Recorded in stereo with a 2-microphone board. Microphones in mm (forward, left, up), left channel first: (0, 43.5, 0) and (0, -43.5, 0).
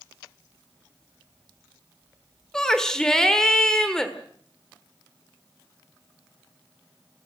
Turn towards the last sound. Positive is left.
turn(degrees=5)  # may be behind; listen again after turning